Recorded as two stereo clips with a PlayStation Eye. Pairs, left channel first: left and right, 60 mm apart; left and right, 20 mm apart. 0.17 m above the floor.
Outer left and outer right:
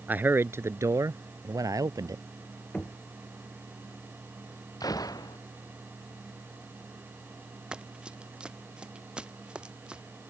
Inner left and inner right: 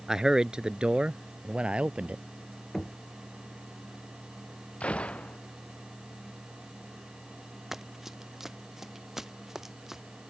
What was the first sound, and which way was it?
A man speaking, 25° right (ahead or behind).